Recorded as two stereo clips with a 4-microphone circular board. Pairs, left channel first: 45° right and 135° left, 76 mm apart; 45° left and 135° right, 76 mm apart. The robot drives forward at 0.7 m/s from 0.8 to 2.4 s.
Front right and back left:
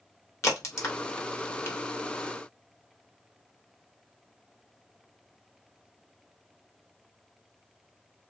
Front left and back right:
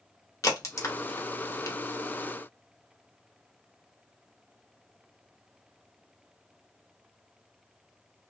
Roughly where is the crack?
Ahead.